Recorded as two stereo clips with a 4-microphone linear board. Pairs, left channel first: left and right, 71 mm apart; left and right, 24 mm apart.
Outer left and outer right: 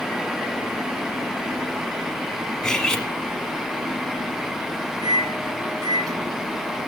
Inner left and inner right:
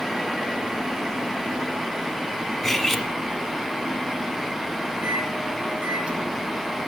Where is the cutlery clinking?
10° left (ahead or behind), 1.1 m.